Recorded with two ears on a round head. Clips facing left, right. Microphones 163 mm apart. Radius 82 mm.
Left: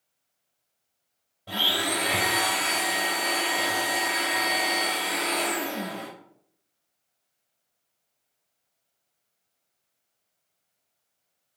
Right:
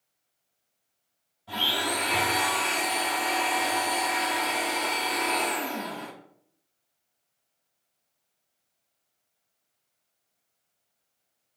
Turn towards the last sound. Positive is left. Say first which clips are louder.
# left 1 dB
turn(degrees=70)  # may be behind; listen again after turning